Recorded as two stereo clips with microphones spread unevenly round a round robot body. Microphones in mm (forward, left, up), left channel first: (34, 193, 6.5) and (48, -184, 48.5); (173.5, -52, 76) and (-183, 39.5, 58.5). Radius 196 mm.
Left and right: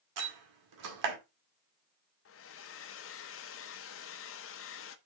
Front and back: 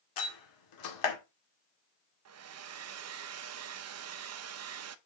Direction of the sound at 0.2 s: 45° right.